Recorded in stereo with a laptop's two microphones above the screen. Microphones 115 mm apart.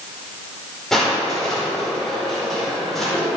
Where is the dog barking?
No dog barking in this recording.